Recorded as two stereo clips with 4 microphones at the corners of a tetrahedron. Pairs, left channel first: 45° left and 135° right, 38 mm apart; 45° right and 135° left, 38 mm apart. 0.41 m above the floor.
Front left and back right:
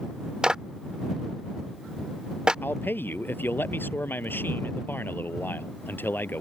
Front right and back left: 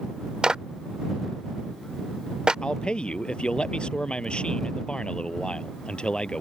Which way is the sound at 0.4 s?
Straight behind.